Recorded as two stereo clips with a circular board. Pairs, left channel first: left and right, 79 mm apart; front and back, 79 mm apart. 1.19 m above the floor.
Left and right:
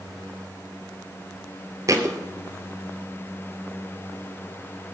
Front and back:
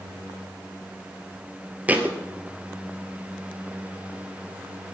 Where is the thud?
115° right, 1.6 m.